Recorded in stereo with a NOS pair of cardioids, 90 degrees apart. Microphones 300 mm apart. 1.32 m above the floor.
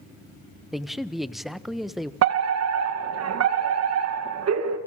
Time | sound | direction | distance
0.7 | a man speaking | straight ahead | 1.1 m
2.2 | a fire alarm | 60° right | 2.5 m